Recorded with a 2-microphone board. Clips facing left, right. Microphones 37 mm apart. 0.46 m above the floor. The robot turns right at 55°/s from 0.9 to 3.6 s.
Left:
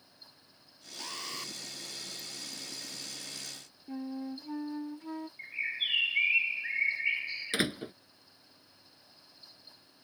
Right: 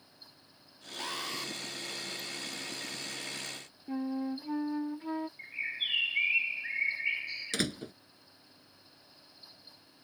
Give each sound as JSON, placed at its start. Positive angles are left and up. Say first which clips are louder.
{"t": 1.0, "sound": "an alarm", "louder": "right 4 dB", "azimuth_deg": -20}
{"t": 3.9, "sound": "a flute", "louder": "right 4 dB", "side_deg": -25}
{"t": 5.4, "sound": "a bird", "louder": "left 1 dB", "side_deg": 10}
{"t": 7.5, "sound": "a door slam", "louder": "left 3 dB", "side_deg": 25}